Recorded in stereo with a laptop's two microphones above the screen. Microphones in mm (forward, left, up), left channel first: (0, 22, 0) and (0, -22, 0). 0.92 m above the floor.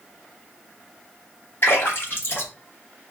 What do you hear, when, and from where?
1.6 s a splash: 60° left (ahead or behind), 1.7 m